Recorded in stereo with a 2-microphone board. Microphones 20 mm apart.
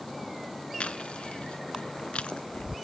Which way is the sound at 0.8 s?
70° left (ahead or behind).